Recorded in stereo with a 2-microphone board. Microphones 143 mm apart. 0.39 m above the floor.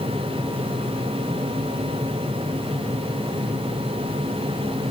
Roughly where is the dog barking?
I don't hear a dog barking.